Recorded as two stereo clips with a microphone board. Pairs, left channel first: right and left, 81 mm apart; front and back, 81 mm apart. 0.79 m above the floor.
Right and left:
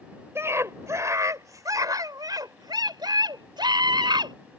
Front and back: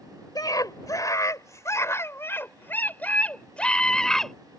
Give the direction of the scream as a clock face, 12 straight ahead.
11 o'clock.